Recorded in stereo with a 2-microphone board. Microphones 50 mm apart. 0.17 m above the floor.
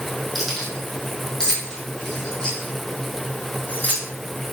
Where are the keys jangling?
5° left (ahead or behind), 5 m; by 4.0 s 30° left (ahead or behind), 6 m.